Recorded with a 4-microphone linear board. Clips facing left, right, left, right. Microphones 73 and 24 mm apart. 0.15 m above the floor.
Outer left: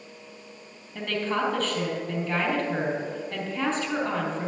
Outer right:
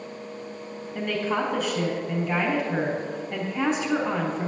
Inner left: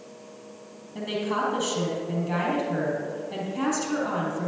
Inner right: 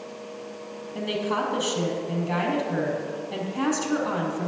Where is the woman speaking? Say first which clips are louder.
Outer right 1 dB, inner right 1 dB; 15° right (ahead or behind), 3.5 m.